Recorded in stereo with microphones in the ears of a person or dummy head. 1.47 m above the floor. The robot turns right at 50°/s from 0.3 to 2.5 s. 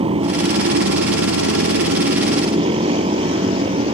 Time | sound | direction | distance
0.0 | a motorcycle | 145° right | ?